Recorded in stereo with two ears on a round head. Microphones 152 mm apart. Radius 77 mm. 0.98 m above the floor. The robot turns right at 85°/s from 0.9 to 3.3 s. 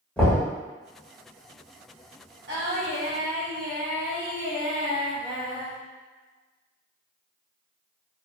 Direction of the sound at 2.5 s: 70° right.